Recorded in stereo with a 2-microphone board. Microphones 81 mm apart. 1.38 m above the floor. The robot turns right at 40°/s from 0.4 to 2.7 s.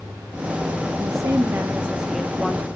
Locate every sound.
1.0 s a woman speaking: 55° right, 2.5 m; by 2.7 s 15° left, 2.5 m